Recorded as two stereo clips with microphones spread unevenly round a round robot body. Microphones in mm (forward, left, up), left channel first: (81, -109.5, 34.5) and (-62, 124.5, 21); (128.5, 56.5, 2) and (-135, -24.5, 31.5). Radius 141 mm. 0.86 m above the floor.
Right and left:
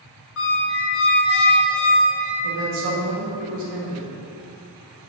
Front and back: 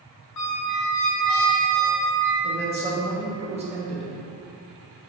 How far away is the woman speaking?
About 1.0 m.